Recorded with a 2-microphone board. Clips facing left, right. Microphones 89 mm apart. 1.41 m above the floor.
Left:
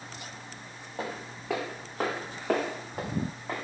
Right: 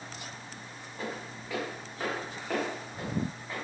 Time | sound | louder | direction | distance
1.0 | footsteps | left 2 dB | 60° left (ahead or behind) | 4 m